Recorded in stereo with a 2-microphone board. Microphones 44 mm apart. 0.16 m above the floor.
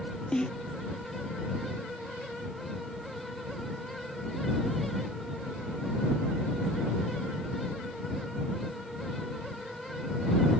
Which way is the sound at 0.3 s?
20° left (ahead or behind).